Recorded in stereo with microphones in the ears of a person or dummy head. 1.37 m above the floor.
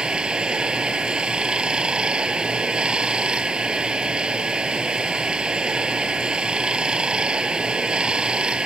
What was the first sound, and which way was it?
Running water, centre (ahead or behind).